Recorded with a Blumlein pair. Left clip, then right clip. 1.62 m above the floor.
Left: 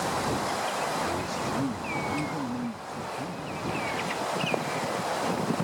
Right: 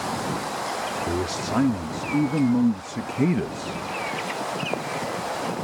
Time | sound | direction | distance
1.1 | a man speaking | 65° right | ?